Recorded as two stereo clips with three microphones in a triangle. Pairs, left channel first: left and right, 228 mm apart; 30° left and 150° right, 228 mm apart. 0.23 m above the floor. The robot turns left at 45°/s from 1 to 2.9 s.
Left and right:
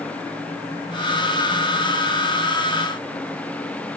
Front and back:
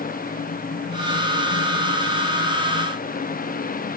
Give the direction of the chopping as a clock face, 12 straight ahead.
No chopping in this recording.